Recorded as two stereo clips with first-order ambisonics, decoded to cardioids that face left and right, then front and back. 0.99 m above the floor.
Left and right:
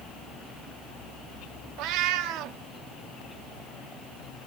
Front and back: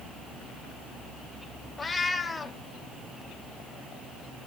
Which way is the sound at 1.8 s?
75° right.